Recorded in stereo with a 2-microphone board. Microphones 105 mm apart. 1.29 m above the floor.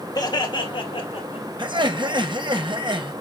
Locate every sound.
0.1 s laughter: 40° left (ahead or behind), 2.5 m; by 1.5 s 75° left (ahead or behind), 3 m
1.6 s laughter: 50° right (ahead or behind), 1.3 m